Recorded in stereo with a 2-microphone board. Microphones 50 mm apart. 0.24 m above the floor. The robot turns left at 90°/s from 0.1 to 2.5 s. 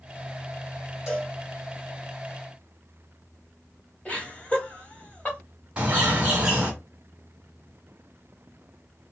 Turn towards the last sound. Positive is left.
turn(degrees=-25)  # may be behind; listen again after turning